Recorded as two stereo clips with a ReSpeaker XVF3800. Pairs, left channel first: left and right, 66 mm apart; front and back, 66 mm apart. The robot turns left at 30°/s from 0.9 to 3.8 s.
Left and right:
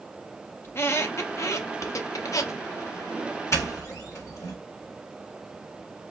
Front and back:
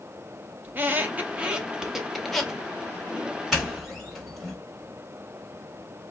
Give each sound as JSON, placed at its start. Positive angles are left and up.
{"t": 0.6, "sound": "a squeak", "azimuth_deg": 130, "distance_m": 0.6}
{"t": 3.5, "sound": "a doorbell", "azimuth_deg": 95, "distance_m": 1.8}